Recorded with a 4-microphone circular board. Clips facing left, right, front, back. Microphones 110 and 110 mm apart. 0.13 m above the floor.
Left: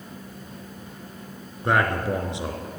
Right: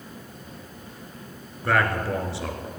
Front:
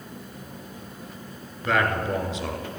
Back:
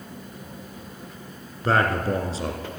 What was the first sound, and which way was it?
A man speaking, 150° left.